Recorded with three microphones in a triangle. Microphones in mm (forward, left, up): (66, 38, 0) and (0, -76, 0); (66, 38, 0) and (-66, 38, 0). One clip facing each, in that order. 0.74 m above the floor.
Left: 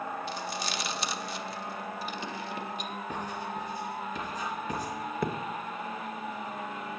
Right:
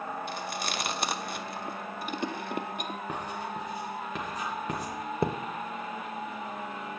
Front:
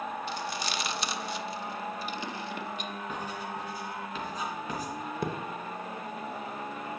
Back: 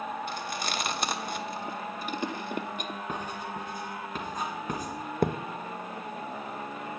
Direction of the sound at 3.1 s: 140° right.